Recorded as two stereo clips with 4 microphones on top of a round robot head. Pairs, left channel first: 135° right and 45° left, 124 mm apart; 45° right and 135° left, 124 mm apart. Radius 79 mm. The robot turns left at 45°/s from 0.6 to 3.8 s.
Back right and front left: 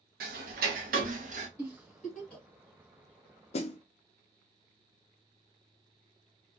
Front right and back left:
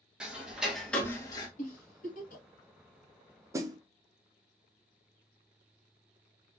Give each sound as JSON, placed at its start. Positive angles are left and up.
{"t": 0.2, "sound": "ticking", "azimuth_deg": 50, "distance_m": 0.7}
{"t": 1.6, "sound": "a giggle", "azimuth_deg": -20, "distance_m": 1.4}
{"t": 3.5, "sound": "a snare drum", "azimuth_deg": -160, "distance_m": 0.5}